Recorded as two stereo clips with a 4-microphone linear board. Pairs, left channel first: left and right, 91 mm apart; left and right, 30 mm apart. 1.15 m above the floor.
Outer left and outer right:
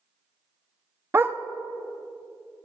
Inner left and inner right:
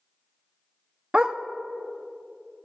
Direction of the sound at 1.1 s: 25° right (ahead or behind).